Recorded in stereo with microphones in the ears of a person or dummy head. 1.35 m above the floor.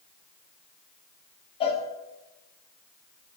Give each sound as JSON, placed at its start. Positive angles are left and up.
{"t": 1.6, "sound": "a cowbell", "side_deg": 30, "distance_m": 1.5}